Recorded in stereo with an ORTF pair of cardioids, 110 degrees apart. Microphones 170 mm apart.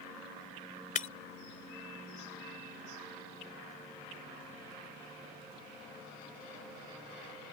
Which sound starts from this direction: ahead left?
Breaking glass, at 0.9 s.